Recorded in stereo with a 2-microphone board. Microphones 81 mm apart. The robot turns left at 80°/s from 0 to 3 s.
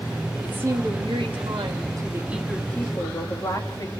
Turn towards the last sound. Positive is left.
turn(degrees=140)